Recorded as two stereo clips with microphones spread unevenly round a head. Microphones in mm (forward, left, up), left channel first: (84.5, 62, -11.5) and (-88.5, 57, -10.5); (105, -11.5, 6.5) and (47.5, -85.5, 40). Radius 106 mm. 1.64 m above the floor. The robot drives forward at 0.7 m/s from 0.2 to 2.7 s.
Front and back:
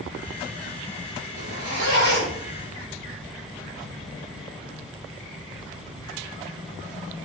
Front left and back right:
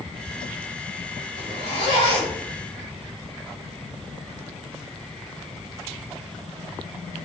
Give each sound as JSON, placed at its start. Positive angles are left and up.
{"t": 1.4, "sound": "a zipper", "azimuth_deg": -150, "distance_m": 7.0}